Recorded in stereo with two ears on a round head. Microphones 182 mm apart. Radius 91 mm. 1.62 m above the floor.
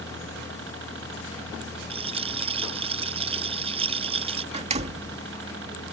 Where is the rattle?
30° right (ahead or behind).